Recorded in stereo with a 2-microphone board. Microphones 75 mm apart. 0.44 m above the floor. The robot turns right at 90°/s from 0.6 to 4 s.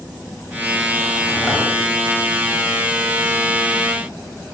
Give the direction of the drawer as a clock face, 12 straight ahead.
1 o'clock.